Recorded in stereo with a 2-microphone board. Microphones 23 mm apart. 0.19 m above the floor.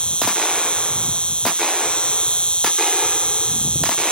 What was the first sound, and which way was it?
An insect, 55° left (ahead or behind).